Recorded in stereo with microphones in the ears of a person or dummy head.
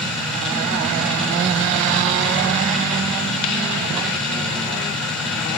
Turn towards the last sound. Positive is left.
turn(degrees=5)  # may be behind; listen again after turning